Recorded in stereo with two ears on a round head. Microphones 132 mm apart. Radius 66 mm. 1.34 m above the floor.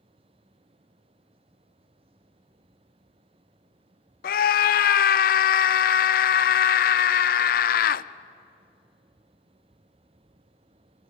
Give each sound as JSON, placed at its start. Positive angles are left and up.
{"t": 4.2, "sound": "a scream", "side_deg": 70, "distance_m": 0.5}